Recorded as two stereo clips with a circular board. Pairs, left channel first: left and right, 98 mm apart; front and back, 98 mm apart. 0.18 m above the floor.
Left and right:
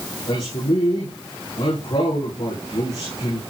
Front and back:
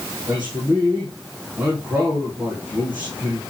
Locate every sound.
0.3 s a man speaking: 115° left, 5 m